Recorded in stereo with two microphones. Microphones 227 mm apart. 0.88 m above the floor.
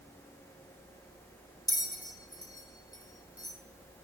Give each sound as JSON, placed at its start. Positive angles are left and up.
{"t": 1.7, "sound": "a bell", "side_deg": 15, "distance_m": 0.8}